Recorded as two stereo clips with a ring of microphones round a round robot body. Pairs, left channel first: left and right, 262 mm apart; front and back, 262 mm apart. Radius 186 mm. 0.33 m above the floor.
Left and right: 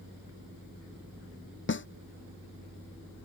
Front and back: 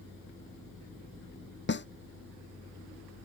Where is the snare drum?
45° left.